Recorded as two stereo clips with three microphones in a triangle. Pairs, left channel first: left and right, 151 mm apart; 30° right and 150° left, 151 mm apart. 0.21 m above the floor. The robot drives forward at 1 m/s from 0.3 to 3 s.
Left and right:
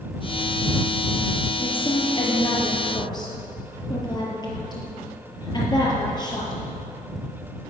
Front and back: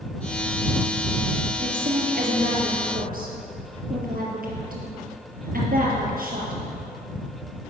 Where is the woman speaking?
140° left, 4 m; by 6.6 s 150° left, 5 m.